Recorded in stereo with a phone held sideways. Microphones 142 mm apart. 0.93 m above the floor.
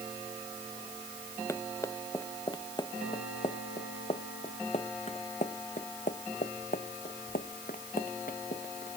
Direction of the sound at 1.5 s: 20° left (ahead or behind).